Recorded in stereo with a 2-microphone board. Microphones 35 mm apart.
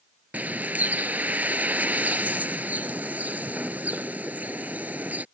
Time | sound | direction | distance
0.3 | a bird | 55° right (ahead or behind) | ?